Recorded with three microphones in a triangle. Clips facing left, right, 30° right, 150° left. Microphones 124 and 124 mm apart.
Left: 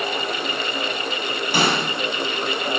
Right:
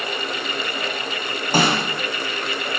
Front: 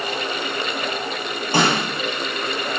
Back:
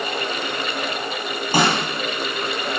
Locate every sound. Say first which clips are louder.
1.5 s a snare drum: right 2 dB, even; 130° right, 3 m